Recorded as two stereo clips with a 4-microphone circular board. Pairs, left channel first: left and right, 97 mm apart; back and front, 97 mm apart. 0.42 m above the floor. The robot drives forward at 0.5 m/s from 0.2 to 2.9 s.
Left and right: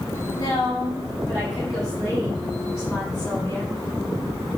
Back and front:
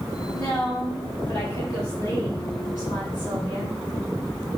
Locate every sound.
0.3 s a woman speaking: 105° left, 2.5 m; by 3.7 s 130° left, 3 m